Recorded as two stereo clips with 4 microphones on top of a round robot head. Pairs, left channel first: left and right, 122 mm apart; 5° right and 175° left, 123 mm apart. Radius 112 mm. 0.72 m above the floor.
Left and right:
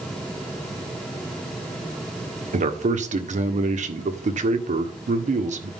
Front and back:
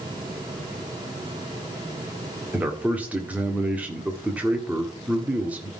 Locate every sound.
2.5 s a man speaking: 105° right, 1.8 m